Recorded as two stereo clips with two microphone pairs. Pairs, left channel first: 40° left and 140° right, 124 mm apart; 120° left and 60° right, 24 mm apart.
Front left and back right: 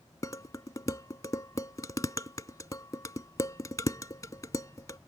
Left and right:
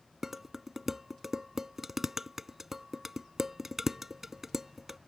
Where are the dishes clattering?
5° left.